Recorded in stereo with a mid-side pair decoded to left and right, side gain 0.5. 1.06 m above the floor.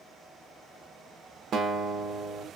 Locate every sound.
1.5 s a guitar: 60° right, 0.7 m